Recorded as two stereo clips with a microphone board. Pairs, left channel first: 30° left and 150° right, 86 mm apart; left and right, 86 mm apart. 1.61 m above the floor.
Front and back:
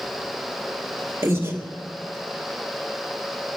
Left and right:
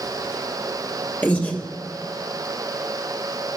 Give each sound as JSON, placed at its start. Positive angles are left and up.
{"t": 1.2, "sound": "breathing", "azimuth_deg": 155, "distance_m": 1.7}